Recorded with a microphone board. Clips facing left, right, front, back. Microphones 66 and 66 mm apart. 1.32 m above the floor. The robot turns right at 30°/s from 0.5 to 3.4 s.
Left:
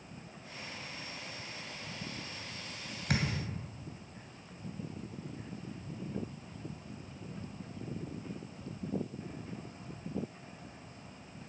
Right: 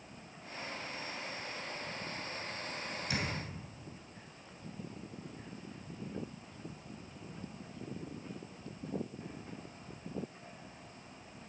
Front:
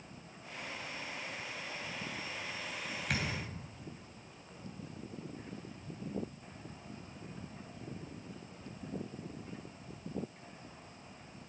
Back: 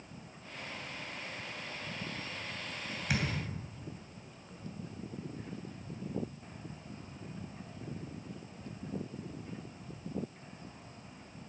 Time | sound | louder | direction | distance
3.1 | a thud | left 5 dB, back 3 dB | 95° left | 2.5 m